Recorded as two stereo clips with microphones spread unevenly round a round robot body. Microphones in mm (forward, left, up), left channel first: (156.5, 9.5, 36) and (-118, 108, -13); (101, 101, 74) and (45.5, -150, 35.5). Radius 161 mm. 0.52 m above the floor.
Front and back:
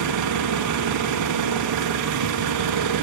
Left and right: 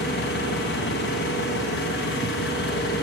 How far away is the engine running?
About 3.5 m.